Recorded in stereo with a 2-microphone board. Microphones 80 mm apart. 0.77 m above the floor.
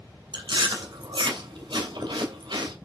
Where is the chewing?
75° right (ahead or behind), 2.5 m.